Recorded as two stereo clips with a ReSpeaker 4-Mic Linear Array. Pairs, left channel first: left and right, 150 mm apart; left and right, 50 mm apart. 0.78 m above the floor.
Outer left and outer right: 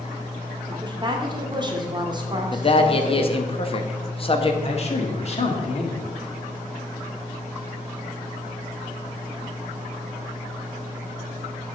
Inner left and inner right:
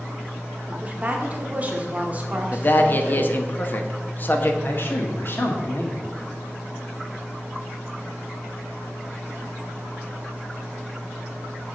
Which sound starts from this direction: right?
A woman speaking, at 0.7 s.